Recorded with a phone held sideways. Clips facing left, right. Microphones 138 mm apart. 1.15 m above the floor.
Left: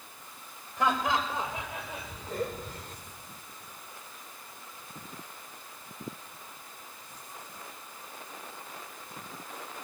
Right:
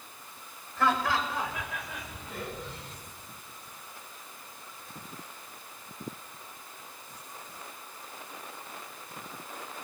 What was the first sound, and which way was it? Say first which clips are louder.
Laughter: even; 15° left (ahead or behind).